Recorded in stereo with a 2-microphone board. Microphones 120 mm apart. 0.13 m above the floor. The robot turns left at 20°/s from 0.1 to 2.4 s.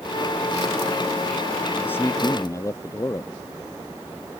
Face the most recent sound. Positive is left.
turn(degrees=25)  # may be behind; listen again after turning